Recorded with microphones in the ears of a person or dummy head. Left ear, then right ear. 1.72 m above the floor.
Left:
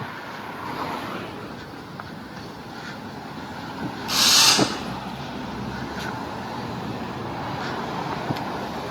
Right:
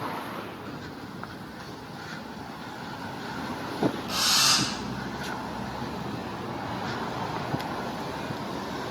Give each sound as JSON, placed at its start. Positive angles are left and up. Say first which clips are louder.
{"t": 4.1, "sound": "a drill", "louder": "left 7 dB", "side_deg": 30, "distance_m": 4.0}